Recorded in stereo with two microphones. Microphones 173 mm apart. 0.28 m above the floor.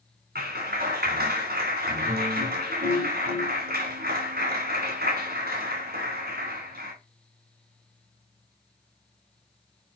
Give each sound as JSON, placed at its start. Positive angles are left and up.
{"t": 0.3, "sound": "a clap", "side_deg": -65, "distance_m": 2.0}